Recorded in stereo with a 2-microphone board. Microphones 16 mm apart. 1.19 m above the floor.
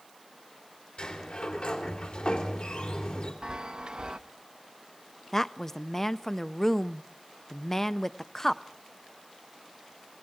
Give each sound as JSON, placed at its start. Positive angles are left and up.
{"t": 1.0, "sound": "a sliding door", "side_deg": 75, "distance_m": 3.5}
{"t": 3.4, "sound": "a chime", "side_deg": -50, "distance_m": 0.6}
{"t": 5.3, "sound": "a woman speaking", "side_deg": 20, "distance_m": 0.6}